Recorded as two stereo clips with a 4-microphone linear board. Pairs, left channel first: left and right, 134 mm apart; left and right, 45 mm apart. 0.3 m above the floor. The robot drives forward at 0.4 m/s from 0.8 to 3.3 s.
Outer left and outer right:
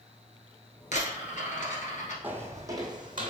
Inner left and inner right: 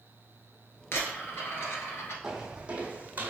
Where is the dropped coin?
65° left (ahead or behind), 1.6 m; by 2.1 s 80° left, 1.4 m.